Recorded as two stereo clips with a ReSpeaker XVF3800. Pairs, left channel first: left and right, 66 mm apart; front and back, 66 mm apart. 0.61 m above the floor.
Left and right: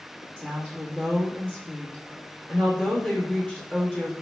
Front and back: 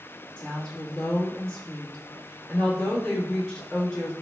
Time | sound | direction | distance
0.4 | a woman speaking | 65° left | 1.1 m